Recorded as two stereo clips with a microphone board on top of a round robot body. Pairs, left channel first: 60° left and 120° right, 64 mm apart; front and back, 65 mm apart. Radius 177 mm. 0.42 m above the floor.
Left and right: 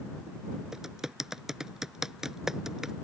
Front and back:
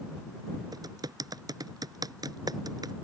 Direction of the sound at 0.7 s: 155° left.